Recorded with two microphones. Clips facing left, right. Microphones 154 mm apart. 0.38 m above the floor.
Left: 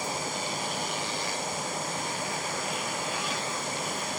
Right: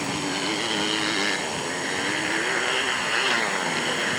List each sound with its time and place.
0.0 s a motorcycle: 70° right (ahead or behind)